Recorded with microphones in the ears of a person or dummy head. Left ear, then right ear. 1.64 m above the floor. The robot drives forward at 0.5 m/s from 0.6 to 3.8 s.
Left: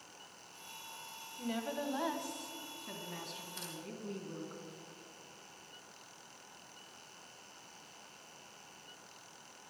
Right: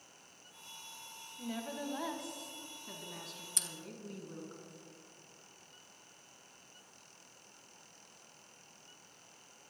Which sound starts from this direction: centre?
A woman speaking, at 1.4 s.